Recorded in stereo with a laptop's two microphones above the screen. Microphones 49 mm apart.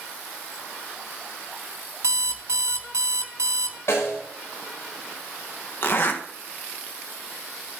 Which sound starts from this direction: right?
An alarm clock, at 2.0 s.